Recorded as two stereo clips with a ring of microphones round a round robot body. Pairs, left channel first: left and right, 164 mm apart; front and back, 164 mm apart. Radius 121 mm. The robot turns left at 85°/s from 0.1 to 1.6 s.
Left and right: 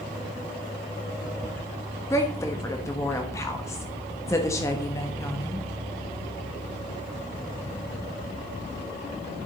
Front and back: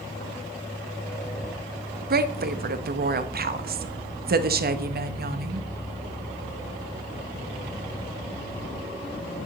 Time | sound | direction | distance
2.1 | a woman speaking | 165° left | 1.1 m